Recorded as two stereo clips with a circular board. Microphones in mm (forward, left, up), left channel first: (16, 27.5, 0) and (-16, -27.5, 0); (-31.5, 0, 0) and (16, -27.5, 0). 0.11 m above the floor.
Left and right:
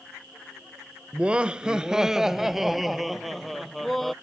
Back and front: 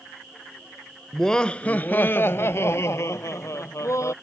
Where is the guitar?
I don't hear a guitar.